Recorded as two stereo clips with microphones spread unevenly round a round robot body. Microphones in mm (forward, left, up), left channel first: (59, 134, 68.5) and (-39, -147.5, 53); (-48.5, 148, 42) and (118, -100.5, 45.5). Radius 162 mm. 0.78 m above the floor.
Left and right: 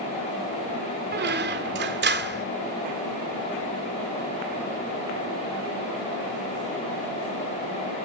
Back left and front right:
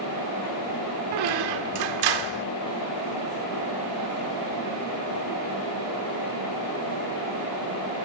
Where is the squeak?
50° right, 1.5 m.